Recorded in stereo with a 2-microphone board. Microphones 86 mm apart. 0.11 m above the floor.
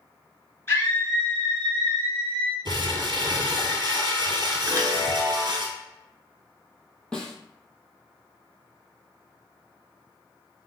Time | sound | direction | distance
0.7 | a scream | 30° left (ahead or behind) | 1.6 m
2.6 | crumpling | 60° right (ahead or behind) | 0.9 m
4.7 | a chime | 30° right (ahead or behind) | 0.8 m
7.1 | a snare drum | 10° left (ahead or behind) | 0.7 m